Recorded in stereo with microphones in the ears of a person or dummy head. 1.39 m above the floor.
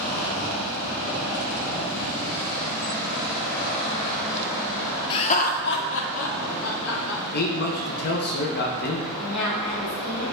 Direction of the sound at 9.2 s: 5° left (ahead or behind).